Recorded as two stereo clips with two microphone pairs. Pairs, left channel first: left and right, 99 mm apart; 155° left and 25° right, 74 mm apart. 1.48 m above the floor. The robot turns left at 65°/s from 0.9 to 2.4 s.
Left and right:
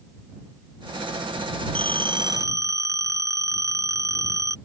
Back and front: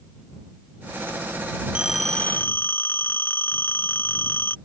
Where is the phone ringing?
100° right; by 4.6 s 145° right.